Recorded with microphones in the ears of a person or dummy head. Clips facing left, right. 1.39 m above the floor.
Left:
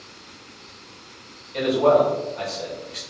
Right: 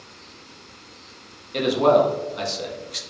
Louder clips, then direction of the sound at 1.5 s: Even; 60° right (ahead or behind).